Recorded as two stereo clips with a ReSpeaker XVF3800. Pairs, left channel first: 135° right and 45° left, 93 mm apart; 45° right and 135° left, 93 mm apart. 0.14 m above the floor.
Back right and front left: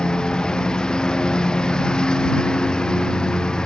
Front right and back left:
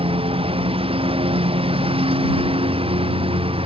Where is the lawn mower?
145° left.